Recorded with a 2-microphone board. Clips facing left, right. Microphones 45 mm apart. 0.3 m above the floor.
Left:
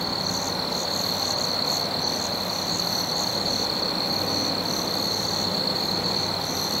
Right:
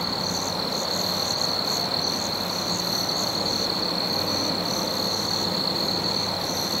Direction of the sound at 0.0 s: 50° right (ahead or behind).